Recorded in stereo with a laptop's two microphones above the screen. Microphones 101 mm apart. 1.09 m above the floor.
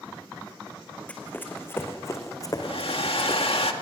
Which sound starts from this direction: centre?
Running footsteps, at 1.1 s.